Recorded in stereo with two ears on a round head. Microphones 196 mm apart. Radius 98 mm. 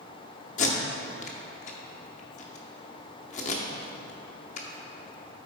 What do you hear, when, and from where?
0.6 s tape being pulled: 35° left (ahead or behind), 0.9 m